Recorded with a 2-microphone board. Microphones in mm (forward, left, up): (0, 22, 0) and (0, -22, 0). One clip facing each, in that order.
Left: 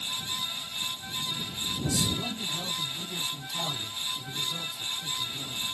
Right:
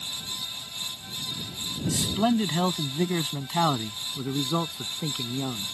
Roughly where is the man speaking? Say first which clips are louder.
Right 8 dB; right.